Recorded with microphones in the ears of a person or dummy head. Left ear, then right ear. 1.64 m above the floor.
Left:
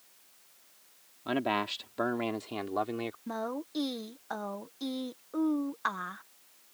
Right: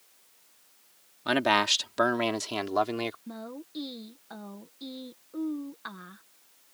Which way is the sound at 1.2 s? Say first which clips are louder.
Right 7 dB; 70° right (ahead or behind).